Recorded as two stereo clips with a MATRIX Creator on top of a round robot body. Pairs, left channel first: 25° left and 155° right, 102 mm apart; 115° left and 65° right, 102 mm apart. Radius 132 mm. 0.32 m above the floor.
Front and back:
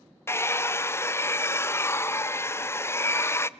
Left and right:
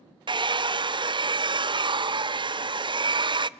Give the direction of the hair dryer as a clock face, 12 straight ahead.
1 o'clock.